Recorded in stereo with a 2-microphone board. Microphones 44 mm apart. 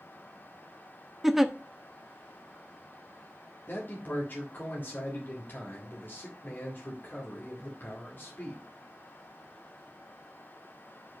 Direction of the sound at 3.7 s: 55° left (ahead or behind).